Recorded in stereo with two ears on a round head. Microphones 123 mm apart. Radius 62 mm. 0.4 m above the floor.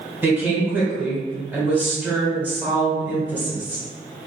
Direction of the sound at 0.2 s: 15° right (ahead or behind).